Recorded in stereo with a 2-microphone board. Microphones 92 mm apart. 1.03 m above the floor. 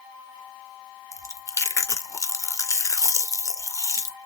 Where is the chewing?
35° left (ahead or behind), 0.6 m.